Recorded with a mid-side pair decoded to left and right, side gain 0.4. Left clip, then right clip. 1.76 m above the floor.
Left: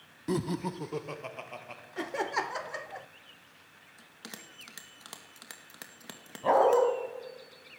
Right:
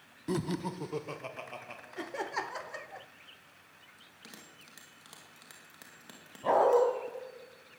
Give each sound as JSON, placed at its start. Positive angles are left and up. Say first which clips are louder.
{"t": 0.3, "sound": "laughter", "louder": "left 2 dB", "azimuth_deg": 10, "distance_m": 0.8}
{"t": 2.0, "sound": "laughter", "louder": "left 4 dB", "azimuth_deg": 25, "distance_m": 0.7}
{"t": 4.0, "sound": "a bell", "louder": "left 6 dB", "azimuth_deg": 50, "distance_m": 2.5}
{"t": 6.4, "sound": "a dog barking", "louder": "left 2 dB", "azimuth_deg": 15, "distance_m": 4.5}